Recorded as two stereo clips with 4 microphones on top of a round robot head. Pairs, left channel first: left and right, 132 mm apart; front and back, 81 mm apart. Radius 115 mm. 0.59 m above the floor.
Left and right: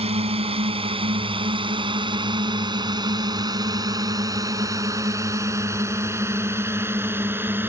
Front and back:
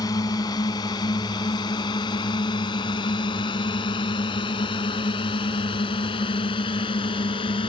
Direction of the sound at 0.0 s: 50° right.